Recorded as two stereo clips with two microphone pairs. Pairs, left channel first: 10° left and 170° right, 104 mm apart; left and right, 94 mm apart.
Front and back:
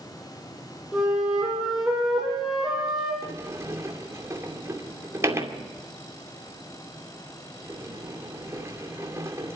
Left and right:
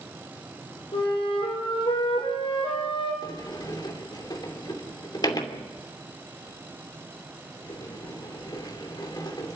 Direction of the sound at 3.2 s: 130° left.